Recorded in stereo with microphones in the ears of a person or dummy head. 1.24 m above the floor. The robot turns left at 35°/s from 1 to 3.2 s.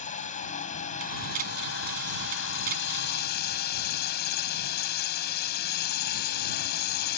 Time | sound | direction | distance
0.0 | a drone | 135° left | ?